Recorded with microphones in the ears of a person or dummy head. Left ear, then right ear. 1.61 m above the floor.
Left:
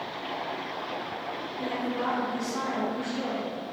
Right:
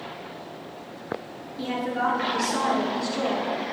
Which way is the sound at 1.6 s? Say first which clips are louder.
Right 6 dB; 50° right (ahead or behind).